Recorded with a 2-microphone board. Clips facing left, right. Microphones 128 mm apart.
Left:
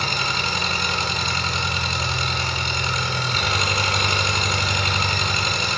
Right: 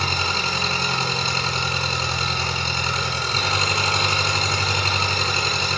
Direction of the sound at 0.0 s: 30° right (ahead or behind).